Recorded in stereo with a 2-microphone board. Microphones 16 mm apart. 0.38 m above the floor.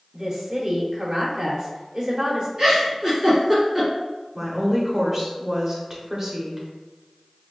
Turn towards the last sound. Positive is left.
turn(degrees=-30)  # may be behind; listen again after turning